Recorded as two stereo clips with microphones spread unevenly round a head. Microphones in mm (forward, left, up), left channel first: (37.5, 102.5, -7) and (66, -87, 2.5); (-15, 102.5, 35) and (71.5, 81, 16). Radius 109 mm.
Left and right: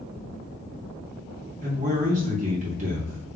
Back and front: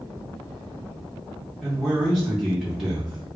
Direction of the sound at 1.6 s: 75° right.